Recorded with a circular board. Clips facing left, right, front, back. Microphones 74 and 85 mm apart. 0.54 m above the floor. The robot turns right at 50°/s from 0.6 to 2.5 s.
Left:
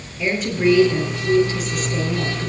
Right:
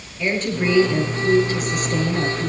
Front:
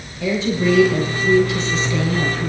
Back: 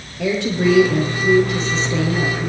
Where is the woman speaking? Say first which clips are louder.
Left 2 dB, back 1 dB; 175° left, 8.5 m; by 2.5 s 90° right, 8.5 m.